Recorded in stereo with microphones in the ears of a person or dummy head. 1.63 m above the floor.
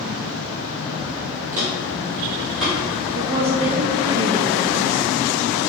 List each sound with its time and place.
1.5 s footsteps: 15° right (ahead or behind), 1.7 m; by 3.7 s 5° left (ahead or behind), 3.5 m
3.1 s a woman speaking: 25° right (ahead or behind), 0.6 m